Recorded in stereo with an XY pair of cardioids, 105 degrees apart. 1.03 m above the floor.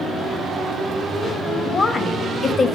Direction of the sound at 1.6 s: 35° left.